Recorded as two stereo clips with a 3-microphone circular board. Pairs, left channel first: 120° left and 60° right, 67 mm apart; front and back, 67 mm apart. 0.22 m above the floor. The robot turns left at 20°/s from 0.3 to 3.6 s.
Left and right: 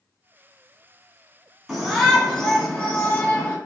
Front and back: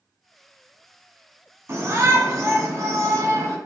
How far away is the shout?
About 2 m.